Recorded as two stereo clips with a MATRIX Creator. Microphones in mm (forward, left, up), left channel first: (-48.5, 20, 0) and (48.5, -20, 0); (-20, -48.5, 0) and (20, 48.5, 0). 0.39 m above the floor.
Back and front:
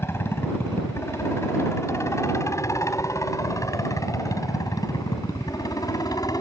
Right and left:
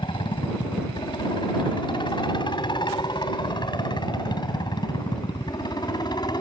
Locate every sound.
0.0 s a helicopter: 140° right; by 6.4 s 155° right